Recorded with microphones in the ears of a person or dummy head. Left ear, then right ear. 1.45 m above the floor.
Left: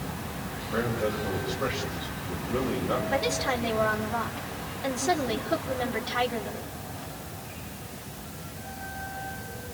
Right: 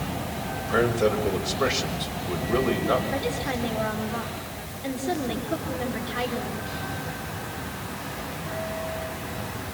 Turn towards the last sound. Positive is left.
turn(degrees=30)  # may be behind; listen again after turning